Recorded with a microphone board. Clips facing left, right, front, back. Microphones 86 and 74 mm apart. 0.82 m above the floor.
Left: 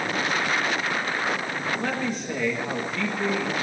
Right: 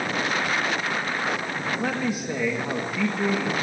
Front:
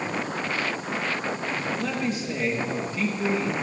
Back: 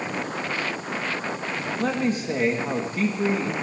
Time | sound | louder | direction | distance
1.8 | a man speaking | right 1 dB, back 3 dB | 165° right | 1.3 m